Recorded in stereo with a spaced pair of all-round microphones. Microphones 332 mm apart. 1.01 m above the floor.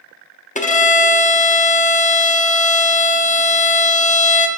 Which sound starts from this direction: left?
A violin, at 0.6 s.